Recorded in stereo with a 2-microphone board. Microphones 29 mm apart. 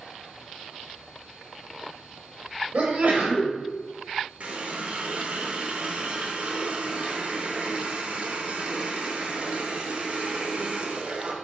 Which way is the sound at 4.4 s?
55° right (ahead or behind).